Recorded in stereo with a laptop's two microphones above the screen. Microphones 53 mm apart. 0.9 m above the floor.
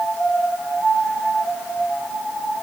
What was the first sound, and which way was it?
Only background noise.